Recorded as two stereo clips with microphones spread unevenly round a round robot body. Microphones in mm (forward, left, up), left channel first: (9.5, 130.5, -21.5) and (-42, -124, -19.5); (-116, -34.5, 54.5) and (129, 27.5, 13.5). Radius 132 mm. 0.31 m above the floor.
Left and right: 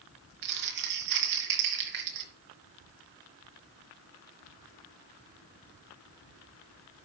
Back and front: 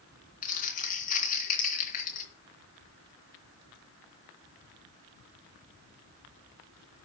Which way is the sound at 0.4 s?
105° right.